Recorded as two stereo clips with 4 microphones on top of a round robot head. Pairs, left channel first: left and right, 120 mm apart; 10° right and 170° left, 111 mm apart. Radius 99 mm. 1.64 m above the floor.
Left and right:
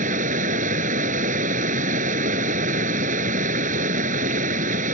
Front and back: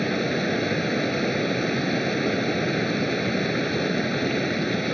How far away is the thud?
No thud in this recording.